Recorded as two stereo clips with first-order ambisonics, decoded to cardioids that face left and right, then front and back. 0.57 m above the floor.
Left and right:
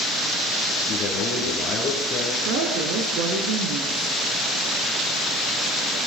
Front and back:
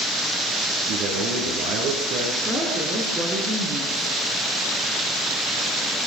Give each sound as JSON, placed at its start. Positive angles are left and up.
{"t": 0.9, "sound": "a man speaking", "azimuth_deg": 160, "distance_m": 8.5}
{"t": 2.5, "sound": "a woman speaking", "azimuth_deg": -110, "distance_m": 7.5}